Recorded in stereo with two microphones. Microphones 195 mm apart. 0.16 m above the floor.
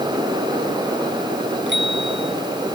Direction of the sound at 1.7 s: 70° right (ahead or behind).